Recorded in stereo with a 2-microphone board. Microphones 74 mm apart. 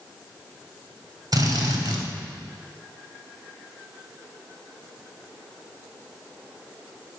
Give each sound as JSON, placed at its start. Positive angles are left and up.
{"t": 1.3, "sound": "a drill", "side_deg": -60, "distance_m": 2.5}